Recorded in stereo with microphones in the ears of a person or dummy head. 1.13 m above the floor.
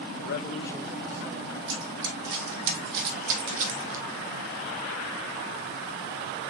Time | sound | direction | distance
0.2 | a man speaking | 70° left (ahead or behind) | 0.7 m
1.7 | running footsteps | 65° right (ahead or behind) | 3.5 m